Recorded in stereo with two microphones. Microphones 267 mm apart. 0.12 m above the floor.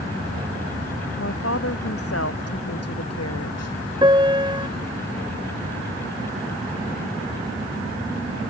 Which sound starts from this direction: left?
A woman speaking, at 1.2 s.